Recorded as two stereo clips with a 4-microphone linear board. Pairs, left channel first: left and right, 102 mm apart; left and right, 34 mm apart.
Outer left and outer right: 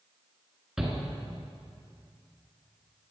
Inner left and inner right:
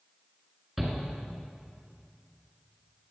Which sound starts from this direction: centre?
A shout, at 0.8 s.